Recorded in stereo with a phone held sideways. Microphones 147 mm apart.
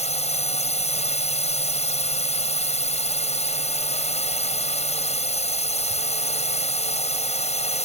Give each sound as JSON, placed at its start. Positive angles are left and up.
{"t": 0.0, "sound": "a drone", "side_deg": 50}